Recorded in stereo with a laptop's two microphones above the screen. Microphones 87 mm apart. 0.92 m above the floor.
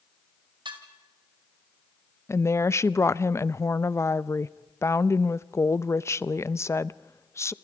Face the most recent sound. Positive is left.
turn(degrees=35)  # may be behind; listen again after turning